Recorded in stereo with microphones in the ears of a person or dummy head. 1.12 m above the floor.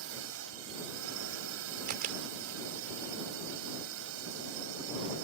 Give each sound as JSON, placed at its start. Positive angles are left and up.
{"t": 0.0, "sound": "a drone", "side_deg": -80}
{"t": 1.9, "sound": "a camera shutter", "side_deg": -45}